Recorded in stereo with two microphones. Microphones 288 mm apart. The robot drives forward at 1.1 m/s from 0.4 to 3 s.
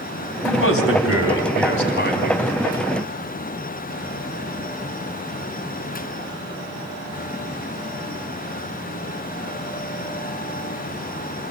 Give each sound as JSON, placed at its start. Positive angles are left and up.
{"t": 0.4, "sound": "a man speaking", "side_deg": 45, "distance_m": 1.9}